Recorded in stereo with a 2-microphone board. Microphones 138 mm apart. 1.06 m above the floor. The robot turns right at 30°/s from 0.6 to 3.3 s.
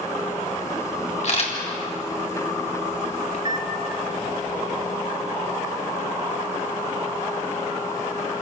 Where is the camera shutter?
55° left (ahead or behind), 3.5 m; by 1.5 s 45° left (ahead or behind), 3.5 m.